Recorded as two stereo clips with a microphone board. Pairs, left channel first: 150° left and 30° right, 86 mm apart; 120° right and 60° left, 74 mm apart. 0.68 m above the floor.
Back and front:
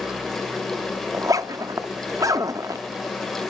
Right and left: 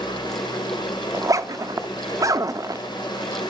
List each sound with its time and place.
0.0 s running water: 115° right, 1.8 m
1.1 s a zipper: 20° left, 0.5 m